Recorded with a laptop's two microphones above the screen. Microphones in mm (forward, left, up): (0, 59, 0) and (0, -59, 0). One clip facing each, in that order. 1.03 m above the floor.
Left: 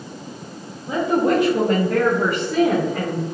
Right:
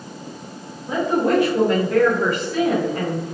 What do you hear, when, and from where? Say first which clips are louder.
0.9 s a woman speaking: left 1 dB; centre (ahead or behind), 0.7 m; by 3.2 s 75° left (ahead or behind), 1.2 m